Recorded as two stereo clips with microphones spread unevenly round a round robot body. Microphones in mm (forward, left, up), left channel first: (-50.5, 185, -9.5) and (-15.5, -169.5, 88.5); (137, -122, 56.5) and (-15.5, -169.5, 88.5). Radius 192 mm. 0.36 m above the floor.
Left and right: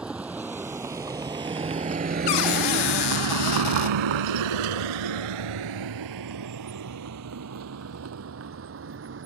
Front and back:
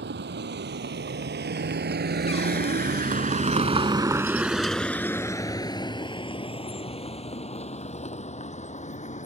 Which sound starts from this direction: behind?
A vehicle, at 0.0 s.